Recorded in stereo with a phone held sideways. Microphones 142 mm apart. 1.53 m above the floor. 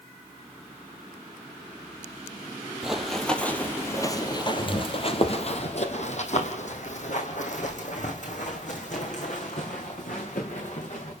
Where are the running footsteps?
5° right (ahead or behind), 1.9 m; by 11.1 s 60° left (ahead or behind), 6 m.